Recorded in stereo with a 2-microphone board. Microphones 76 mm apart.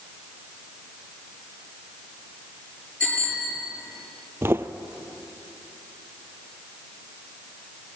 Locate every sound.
3.0 s a bicycle bell: 15° left (ahead or behind), 8 m
4.4 s footsteps: 35° right (ahead or behind), 0.8 m